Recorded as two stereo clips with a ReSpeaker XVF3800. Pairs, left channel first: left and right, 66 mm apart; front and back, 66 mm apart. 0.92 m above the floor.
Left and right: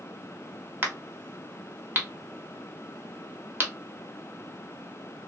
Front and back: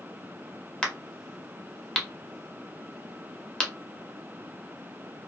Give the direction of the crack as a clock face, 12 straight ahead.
2 o'clock.